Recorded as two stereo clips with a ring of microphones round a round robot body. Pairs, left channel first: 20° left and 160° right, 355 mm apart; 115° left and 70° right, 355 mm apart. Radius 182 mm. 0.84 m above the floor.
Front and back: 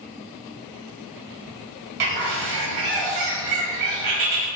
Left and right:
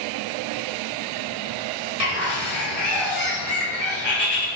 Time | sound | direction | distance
2.0 | a bird | 175° left | 1.1 m